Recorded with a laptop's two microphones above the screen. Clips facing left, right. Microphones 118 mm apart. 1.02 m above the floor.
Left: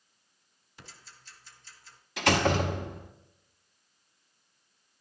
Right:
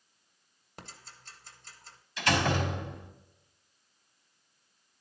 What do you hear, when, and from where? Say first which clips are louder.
0.8 s ticking: right 4 dB; 60° right (ahead or behind), 1.4 m
2.2 s a door slam: left 3 dB; 80° left, 1.9 m